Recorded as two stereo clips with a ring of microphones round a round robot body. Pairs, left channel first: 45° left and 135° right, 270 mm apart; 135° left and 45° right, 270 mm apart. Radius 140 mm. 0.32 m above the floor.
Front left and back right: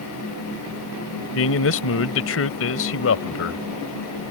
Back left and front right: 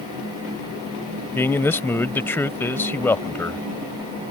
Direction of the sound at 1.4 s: 55° left.